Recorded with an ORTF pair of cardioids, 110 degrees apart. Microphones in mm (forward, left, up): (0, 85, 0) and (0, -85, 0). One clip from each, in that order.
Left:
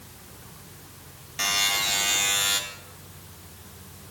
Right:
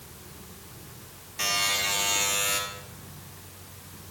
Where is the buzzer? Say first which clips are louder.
Left 2 dB; 40° left, 1.9 m.